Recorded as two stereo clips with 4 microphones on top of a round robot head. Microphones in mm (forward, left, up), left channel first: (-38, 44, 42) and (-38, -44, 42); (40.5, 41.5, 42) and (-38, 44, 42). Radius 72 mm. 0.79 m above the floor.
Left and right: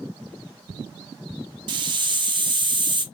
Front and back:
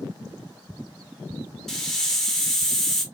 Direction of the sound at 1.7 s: 85° right.